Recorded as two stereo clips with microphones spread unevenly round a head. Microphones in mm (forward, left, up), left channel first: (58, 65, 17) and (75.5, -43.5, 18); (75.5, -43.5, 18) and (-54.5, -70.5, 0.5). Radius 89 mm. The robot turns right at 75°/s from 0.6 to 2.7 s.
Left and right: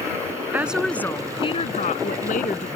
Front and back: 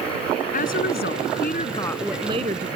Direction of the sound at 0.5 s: 5° right.